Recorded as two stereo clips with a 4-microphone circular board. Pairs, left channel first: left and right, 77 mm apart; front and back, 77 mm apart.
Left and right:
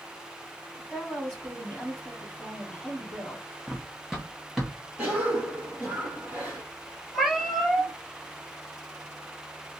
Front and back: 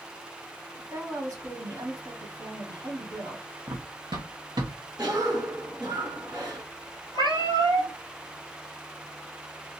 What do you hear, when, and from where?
0.7 s a woman speaking: 170° left, 2.5 m
3.7 s running footsteps: 170° right, 1.0 m; by 4.8 s straight behind, 1.6 m
5.0 s a cough: 160° right, 2.5 m
7.1 s a cat meowing: 175° right, 3 m